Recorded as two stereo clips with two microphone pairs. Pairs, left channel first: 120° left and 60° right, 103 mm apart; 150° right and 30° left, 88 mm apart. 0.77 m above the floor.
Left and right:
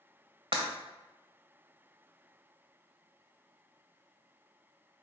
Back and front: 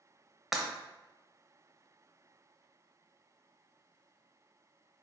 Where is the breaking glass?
55° right, 0.9 m.